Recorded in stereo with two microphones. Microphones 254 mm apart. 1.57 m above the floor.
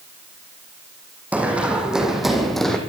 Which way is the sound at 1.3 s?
5° right (ahead or behind).